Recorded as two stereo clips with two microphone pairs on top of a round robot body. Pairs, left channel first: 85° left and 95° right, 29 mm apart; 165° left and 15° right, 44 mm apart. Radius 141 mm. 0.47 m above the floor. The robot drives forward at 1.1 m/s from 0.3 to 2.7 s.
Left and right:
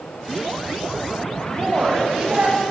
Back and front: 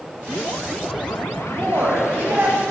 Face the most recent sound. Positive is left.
turn(degrees=-50)